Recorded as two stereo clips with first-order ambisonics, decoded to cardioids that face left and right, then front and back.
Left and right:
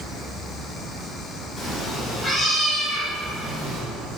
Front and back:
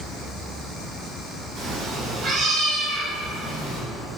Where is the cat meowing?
145° left, 1.5 m; by 3.8 s 5° right, 1.6 m.